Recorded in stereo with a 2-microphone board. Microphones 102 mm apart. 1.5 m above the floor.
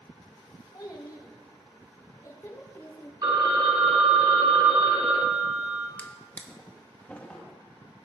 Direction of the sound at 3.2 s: 45° right (ahead or behind).